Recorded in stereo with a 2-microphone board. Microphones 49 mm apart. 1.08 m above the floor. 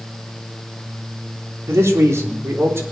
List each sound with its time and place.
1.7 s a man speaking: 75° right (ahead or behind), 3.5 m; by 2.8 s 60° right (ahead or behind), 4.5 m